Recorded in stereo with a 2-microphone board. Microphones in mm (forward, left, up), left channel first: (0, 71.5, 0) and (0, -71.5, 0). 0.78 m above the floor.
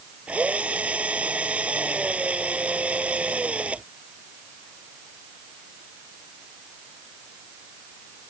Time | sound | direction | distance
0.3 | a drill | 10° right (ahead or behind) | ?